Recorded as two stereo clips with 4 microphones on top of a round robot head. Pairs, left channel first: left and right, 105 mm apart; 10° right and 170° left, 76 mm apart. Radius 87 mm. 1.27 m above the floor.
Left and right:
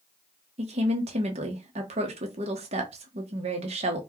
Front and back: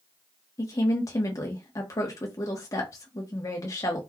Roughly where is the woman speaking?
Ahead right.